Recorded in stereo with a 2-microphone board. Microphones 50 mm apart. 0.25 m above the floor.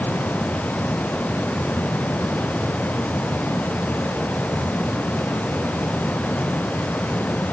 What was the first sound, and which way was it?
Only background noise.